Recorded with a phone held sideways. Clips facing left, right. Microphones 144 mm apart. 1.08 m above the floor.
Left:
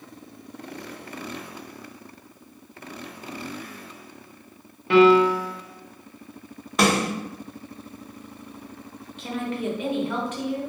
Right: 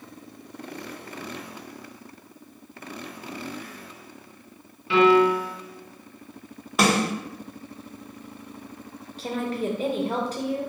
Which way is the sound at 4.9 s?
50° left (ahead or behind).